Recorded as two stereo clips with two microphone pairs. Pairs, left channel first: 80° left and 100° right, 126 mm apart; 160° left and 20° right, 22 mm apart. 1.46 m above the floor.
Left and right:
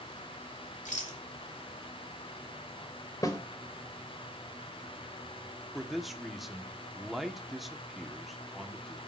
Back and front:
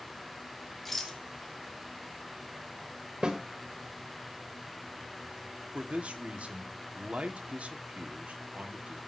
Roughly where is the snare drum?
Ahead.